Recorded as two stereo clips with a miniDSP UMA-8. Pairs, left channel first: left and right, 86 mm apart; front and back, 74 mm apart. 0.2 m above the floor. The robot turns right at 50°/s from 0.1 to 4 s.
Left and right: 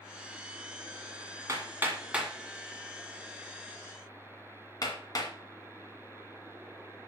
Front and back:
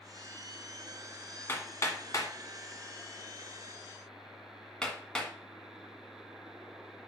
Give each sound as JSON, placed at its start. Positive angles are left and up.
{"t": 1.5, "sound": "hammering", "azimuth_deg": -50, "distance_m": 1.7}